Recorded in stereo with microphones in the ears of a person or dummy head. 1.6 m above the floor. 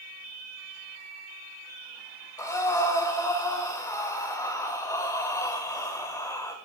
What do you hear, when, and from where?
2.4 s breathing: 20° left (ahead or behind), 2 m